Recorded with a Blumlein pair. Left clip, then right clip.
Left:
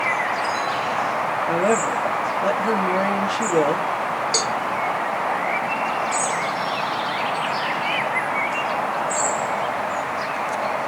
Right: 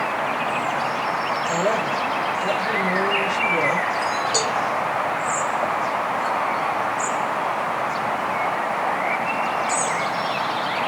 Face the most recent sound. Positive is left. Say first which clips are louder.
# left 2 dB
turn(degrees=45)